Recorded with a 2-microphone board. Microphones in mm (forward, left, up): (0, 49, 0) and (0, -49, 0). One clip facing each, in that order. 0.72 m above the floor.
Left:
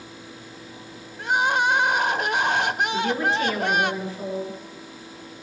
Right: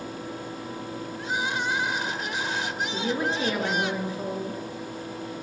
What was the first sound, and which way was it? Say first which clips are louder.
Crying: left 8 dB; 65° left (ahead or behind).